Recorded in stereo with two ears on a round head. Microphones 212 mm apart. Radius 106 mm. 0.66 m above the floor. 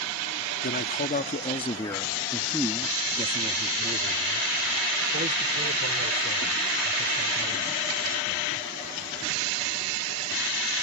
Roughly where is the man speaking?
Left.